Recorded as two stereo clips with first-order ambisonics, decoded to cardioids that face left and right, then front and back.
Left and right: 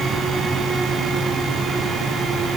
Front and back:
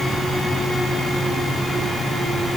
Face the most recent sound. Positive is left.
No sound to turn to.